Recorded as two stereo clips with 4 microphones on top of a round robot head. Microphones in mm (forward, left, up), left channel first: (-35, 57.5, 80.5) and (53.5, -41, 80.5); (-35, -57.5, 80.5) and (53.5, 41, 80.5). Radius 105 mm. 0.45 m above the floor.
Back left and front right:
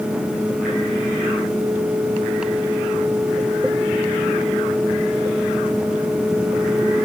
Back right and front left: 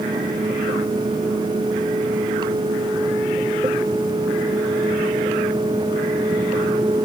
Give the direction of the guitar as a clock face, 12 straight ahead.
No guitar in this recording.